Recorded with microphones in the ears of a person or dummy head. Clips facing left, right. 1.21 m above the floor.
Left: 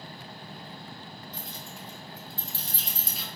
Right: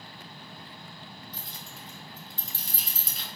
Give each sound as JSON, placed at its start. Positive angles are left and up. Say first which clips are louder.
{"t": 1.3, "sound": "keys jangling", "louder": "left 3 dB", "side_deg": -35, "distance_m": 1.5}